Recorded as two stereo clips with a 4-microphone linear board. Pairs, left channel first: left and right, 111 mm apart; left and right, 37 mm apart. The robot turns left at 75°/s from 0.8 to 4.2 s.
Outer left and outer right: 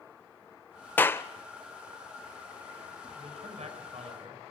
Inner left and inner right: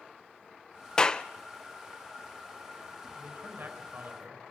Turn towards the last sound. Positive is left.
turn(degrees=-115)